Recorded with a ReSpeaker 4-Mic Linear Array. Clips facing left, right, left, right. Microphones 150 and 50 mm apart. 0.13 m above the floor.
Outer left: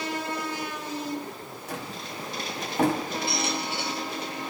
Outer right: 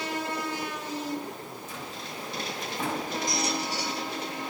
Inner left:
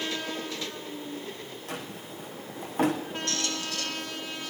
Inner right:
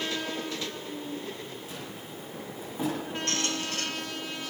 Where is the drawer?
65° left (ahead or behind), 4.5 m.